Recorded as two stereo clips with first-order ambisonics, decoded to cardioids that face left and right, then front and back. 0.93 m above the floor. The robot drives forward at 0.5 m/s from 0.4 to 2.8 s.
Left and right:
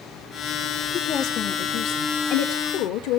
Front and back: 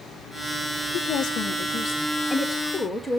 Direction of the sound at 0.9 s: 45° left.